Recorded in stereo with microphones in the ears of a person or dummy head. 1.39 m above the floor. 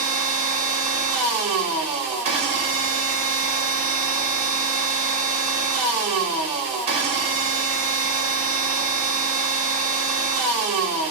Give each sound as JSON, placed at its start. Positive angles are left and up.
{"t": 0.0, "sound": "a machine running", "side_deg": -35, "distance_m": 0.7}